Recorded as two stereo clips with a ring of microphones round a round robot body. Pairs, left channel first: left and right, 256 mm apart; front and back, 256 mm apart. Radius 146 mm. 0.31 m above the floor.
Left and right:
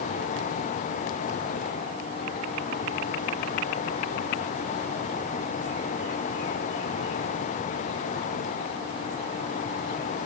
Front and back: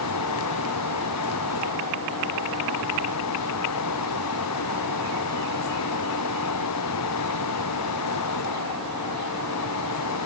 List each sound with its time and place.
Only background noise.